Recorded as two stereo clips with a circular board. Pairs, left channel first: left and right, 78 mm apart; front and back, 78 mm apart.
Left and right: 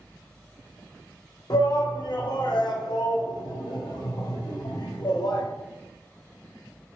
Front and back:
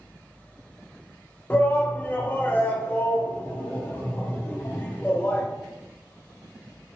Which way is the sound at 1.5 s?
65° left.